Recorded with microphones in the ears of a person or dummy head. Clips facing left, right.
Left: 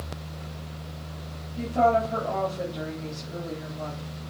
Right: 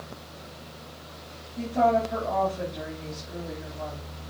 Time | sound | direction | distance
1.6 | a woman speaking | 5° right (ahead or behind) | 3.5 m